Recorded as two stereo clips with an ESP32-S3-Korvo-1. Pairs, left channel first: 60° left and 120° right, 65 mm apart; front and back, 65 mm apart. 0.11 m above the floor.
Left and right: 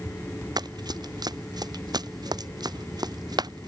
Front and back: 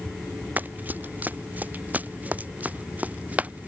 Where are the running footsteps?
115° right; by 3.7 s 110° right.